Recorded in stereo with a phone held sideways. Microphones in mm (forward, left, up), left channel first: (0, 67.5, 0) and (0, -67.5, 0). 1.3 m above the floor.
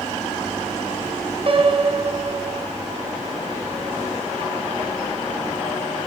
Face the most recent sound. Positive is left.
turn(degrees=-45)  # may be behind; listen again after turning